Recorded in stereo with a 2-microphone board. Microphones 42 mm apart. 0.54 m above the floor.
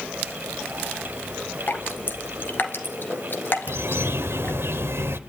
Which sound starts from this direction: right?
A bird, at 3.7 s.